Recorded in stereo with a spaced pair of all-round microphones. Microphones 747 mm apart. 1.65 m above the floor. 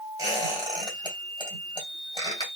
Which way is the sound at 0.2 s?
5° left (ahead or behind).